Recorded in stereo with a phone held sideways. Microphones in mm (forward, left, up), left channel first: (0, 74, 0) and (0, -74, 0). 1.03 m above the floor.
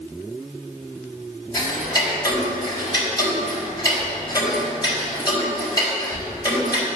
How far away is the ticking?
About 4 m.